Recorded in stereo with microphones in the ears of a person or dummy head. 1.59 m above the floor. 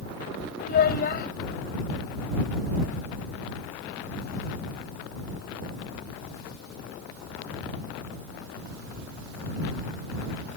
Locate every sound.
0.6 s a child speaking: 55° left (ahead or behind)